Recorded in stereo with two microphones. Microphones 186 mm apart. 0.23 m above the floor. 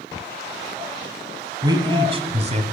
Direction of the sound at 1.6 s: 20° right (ahead or behind).